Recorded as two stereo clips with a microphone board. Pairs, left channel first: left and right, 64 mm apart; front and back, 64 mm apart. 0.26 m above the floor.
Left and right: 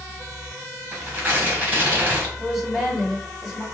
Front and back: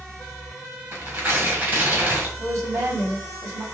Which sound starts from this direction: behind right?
Tearing paper, at 0.9 s.